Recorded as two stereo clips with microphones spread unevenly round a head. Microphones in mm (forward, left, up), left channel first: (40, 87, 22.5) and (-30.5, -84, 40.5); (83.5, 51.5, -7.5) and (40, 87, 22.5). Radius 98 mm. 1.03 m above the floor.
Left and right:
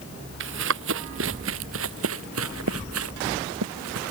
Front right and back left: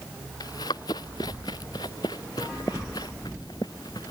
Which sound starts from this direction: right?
Running footsteps, at 0.4 s.